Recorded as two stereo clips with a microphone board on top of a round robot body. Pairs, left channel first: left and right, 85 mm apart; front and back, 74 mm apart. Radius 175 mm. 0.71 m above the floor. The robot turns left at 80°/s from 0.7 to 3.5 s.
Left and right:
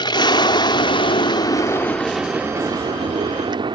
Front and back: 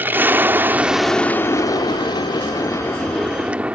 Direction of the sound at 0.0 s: 115° left.